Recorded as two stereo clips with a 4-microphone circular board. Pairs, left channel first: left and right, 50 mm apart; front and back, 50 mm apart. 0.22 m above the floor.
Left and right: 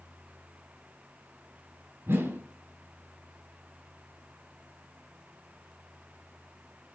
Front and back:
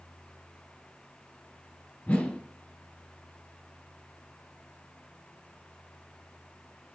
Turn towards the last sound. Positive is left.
turn(degrees=-65)